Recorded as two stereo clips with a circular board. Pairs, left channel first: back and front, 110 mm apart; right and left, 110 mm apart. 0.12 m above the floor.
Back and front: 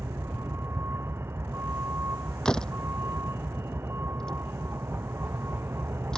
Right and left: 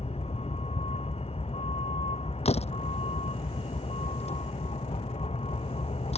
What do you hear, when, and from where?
0.0 s a vehicle: 70° right
2.5 s a door slam: 95° right